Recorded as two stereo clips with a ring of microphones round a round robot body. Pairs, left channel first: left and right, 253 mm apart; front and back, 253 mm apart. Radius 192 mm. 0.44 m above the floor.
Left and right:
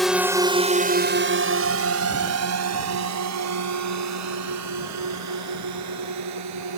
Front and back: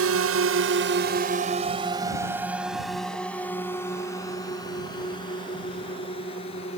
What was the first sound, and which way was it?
A drone, straight behind.